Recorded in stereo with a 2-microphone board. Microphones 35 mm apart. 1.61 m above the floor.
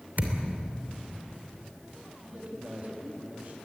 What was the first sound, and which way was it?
A thud, 65° right (ahead or behind).